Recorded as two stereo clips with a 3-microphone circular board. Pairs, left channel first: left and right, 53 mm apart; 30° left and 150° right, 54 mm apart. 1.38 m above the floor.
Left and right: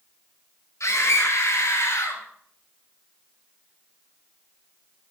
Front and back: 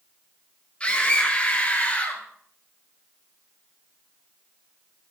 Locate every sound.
0.8 s a scream: 95° left, 7 m; by 2.2 s 90° left, 5.5 m